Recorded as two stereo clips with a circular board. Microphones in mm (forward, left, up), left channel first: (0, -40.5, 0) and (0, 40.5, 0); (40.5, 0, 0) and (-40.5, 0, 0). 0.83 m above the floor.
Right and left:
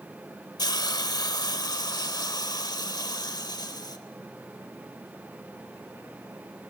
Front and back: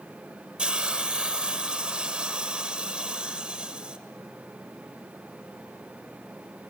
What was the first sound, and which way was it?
A hiss, 105° right.